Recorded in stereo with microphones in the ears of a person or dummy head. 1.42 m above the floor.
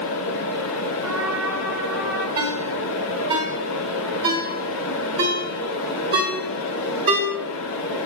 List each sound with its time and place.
0.0 s a fan: 65° left (ahead or behind), 0.7 m
1.0 s a trumpet: 10° right (ahead or behind), 1.4 m
2.4 s a ringtone: 20° right (ahead or behind), 1.9 m